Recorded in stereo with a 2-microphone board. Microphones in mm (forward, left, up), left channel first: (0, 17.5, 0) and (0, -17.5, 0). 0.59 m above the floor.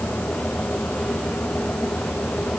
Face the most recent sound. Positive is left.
No sound to turn to.